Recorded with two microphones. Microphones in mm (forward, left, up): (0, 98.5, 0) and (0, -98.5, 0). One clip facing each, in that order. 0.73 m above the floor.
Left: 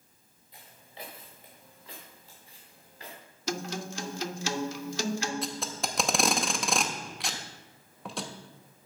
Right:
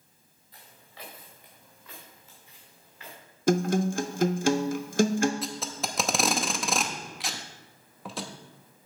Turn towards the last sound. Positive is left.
turn(degrees=0)  # may be behind; listen again after turning